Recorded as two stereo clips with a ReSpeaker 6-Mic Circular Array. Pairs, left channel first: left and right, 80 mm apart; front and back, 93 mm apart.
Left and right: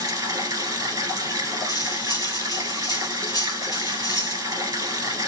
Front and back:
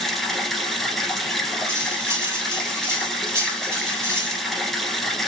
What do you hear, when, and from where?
0.0 s running water: 90° right, 1.2 m
1.7 s cutlery clinking: 120° left, 1.6 m